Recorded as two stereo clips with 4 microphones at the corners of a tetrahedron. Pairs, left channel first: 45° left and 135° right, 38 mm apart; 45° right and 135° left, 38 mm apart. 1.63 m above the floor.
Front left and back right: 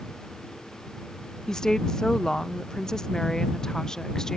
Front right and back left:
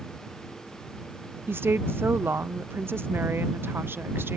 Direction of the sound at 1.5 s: 120° left.